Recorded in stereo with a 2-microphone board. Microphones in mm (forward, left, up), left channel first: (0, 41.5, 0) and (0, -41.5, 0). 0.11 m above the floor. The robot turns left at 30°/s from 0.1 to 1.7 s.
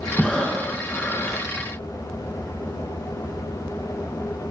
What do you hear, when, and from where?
0.2 s breathing: 175° left, 2.5 m; by 1.4 s 140° left, 2.5 m